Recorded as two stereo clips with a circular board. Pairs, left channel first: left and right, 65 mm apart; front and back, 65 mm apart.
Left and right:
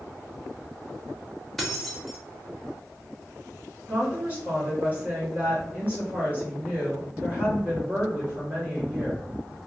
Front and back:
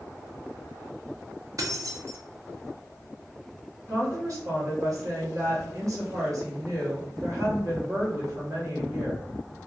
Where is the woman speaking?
155° right, 1.3 m.